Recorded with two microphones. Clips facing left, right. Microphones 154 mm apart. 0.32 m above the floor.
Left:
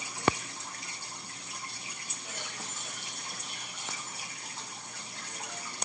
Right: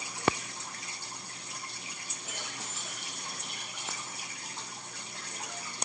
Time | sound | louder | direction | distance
2.3 | keys jangling | even | 70° right (ahead or behind) | 4 m